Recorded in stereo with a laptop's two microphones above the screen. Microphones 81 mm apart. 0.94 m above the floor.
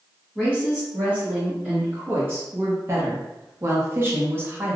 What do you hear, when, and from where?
0.3 s a woman speaking: 15° right (ahead or behind), 1.8 m; by 4.8 s 25° right (ahead or behind), 1.2 m